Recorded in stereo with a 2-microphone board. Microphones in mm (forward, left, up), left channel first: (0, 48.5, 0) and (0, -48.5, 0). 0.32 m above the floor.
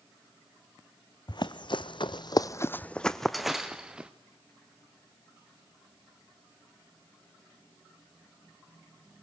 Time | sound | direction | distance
1.3 | running footsteps | 50° left (ahead or behind) | 0.9 m